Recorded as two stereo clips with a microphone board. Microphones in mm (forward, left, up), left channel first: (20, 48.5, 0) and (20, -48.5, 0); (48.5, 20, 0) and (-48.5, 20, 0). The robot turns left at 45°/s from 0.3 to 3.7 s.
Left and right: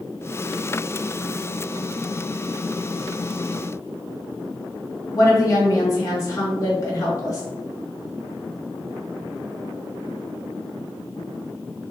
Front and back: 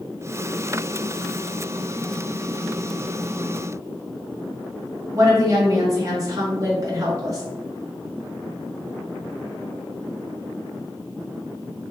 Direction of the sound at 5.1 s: 135° left.